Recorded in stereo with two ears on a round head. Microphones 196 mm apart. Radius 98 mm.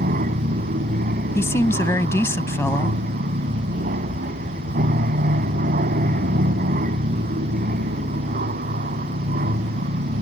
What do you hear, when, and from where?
0.0 s an aircraft: 40° right (ahead or behind)
1.4 s a woman speaking: 10° left (ahead or behind)